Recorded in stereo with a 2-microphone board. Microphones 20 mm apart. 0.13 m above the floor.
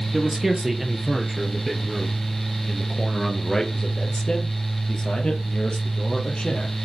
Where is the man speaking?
20° right (ahead or behind), 3.5 m; by 6.8 s 55° left (ahead or behind), 4 m.